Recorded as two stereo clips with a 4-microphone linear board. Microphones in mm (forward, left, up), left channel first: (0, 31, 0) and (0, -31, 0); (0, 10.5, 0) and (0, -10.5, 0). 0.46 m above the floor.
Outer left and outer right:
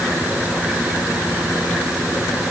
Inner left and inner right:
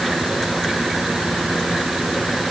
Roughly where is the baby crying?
No baby crying in this recording.